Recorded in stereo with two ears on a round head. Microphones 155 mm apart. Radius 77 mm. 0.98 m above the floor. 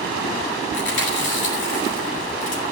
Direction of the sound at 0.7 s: 70° left (ahead or behind).